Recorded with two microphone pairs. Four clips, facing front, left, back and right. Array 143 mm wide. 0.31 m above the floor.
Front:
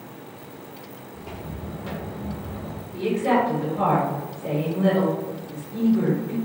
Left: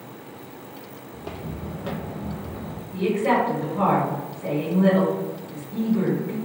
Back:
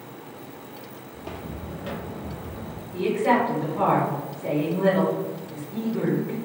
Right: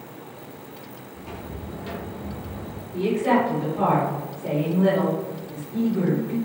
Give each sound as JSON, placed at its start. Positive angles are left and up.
{"t": 1.1, "sound": "footsteps", "azimuth_deg": 110, "distance_m": 0.7}
{"t": 2.9, "sound": "a woman speaking", "azimuth_deg": 110, "distance_m": 1.1}